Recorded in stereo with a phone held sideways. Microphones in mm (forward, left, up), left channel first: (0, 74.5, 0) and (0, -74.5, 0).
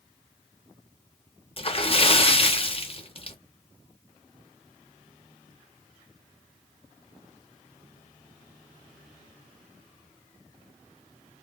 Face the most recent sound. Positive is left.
turn(degrees=40)  # may be behind; listen again after turning